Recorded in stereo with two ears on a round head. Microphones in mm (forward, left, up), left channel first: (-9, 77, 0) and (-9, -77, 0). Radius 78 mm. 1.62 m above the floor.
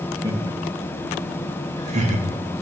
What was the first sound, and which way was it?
Laughter, 20° right (ahead or behind).